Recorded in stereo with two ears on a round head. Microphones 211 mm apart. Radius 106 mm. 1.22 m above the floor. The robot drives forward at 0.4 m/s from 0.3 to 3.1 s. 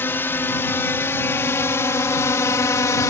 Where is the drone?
10° left (ahead or behind); by 3.1 s 15° left (ahead or behind).